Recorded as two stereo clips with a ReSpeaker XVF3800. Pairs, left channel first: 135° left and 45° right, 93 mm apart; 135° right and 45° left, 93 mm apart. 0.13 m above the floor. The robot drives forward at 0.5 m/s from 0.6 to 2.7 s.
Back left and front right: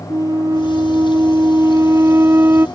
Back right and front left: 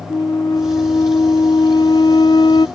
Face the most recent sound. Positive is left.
turn(degrees=-110)